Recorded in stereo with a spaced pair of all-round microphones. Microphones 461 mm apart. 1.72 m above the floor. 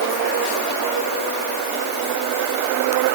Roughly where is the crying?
I don't hear crying.